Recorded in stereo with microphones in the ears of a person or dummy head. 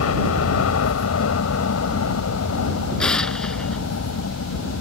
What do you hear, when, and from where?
0.0 s a helicopter: 80° left
3.0 s an explosion: centre (ahead or behind)